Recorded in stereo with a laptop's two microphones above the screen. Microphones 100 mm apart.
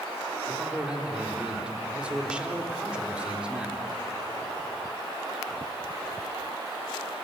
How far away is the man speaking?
About 3.5 m.